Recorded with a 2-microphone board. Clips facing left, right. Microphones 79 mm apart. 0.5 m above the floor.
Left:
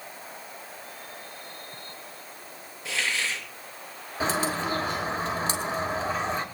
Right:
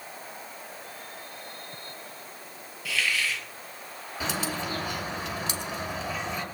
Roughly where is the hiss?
Left.